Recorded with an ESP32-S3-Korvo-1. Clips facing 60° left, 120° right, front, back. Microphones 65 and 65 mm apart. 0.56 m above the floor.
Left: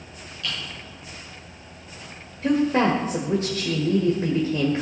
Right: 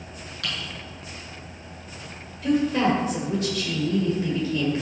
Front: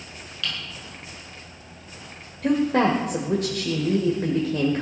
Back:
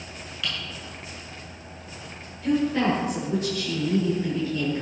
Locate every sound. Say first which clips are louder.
0.4 s typing on a keyboard: even, even; 100° right, 7 m
2.4 s a woman speaking: left 1 dB, front 3 dB; 10° left, 1.7 m